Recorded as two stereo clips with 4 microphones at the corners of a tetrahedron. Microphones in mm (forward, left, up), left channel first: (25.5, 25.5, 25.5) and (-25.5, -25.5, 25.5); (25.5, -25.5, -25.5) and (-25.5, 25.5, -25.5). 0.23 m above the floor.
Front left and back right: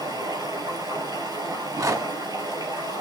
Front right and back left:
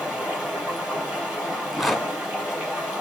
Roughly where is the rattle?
Behind right.